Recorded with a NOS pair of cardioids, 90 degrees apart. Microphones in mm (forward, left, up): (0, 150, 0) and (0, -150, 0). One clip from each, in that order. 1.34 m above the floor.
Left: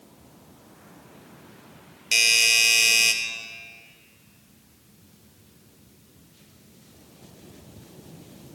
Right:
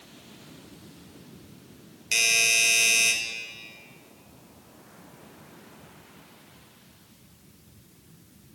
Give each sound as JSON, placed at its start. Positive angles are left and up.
{"t": 2.1, "sound": "a doorbell", "azimuth_deg": 20, "distance_m": 2.0}